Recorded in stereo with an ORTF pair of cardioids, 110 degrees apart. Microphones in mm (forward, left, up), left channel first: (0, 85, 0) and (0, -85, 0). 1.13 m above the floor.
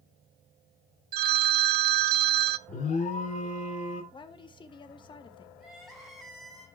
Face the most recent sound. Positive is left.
turn(degrees=0)